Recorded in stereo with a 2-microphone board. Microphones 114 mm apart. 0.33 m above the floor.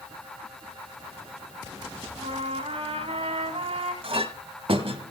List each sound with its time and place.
2.1 s a trumpet: 65° right (ahead or behind), 2.0 m
4.0 s a clink: 55° right (ahead or behind), 1.3 m